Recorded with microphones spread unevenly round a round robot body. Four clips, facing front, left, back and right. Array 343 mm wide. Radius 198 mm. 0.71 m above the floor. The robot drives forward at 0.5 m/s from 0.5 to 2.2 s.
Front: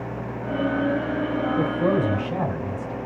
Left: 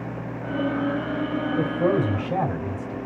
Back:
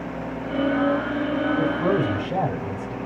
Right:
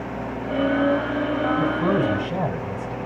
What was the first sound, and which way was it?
A man speaking, 85° left.